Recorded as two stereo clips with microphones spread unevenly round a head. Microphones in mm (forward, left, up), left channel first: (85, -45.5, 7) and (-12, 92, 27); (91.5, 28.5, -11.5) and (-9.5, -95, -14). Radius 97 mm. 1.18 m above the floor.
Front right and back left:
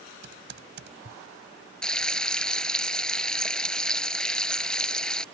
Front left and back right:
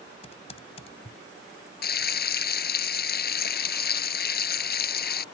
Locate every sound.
0.2 s typing on a keyboard: 110° left
1.8 s frying: 35° left